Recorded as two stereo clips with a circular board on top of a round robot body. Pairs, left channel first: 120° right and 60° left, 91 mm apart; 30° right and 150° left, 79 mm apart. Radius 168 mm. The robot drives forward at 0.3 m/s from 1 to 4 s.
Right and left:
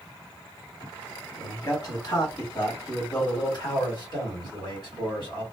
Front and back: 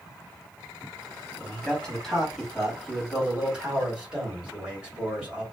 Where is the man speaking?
100° right, 1.5 m; by 5.4 s 135° right, 1.7 m.